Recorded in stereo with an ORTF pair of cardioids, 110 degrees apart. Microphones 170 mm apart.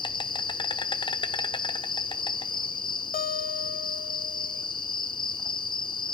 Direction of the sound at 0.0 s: 30° left.